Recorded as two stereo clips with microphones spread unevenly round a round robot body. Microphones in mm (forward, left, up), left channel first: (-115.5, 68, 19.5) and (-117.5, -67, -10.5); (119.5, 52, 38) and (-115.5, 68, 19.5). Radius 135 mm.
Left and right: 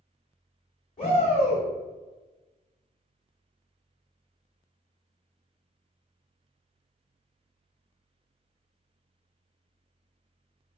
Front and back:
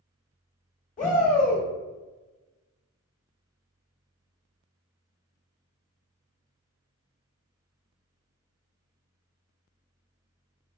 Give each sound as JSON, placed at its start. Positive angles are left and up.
{"t": 1.0, "sound": "a shout", "azimuth_deg": 35, "distance_m": 1.1}